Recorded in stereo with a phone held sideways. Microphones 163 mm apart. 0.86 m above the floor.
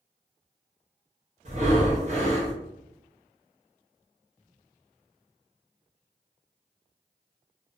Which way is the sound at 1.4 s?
45° right (ahead or behind).